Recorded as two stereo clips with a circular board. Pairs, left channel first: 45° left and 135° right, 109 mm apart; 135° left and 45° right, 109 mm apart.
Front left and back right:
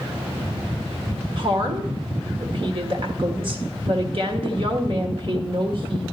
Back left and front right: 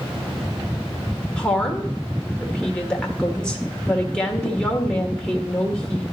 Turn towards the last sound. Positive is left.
turn(degrees=-145)